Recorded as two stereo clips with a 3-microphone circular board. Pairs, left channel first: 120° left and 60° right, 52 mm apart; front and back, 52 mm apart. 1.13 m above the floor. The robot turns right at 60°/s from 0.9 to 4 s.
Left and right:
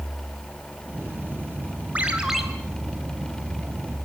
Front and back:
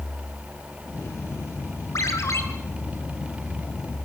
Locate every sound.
1.9 s a ringtone: straight ahead, 3 m; by 2.4 s 30° left, 3 m